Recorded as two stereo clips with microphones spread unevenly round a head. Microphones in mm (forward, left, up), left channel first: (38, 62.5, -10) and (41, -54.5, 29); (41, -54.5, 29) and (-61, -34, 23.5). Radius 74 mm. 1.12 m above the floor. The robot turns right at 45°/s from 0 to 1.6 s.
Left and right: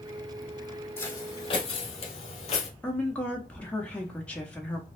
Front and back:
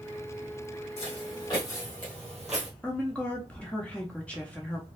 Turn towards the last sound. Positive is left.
turn(degrees=65)